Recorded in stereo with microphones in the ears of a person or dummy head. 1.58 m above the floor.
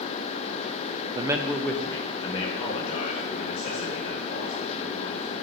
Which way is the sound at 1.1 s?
20° right (ahead or behind).